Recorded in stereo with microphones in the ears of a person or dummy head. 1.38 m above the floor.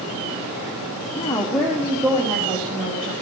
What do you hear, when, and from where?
1.2 s a woman speaking: 30° left (ahead or behind), 0.7 m; by 3.1 s 40° right (ahead or behind), 1.7 m